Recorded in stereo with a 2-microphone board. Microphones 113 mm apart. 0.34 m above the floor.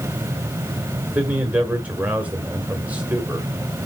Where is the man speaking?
15° right (ahead or behind), 1.4 m.